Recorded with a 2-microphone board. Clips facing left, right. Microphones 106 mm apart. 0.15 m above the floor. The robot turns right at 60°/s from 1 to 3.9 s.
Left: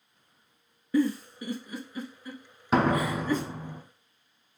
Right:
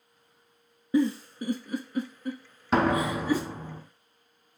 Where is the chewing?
I don't hear chewing.